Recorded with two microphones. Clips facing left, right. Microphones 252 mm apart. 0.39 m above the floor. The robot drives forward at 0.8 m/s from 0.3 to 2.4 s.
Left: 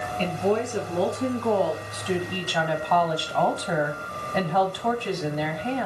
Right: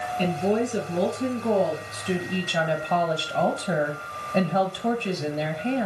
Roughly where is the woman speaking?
Centre.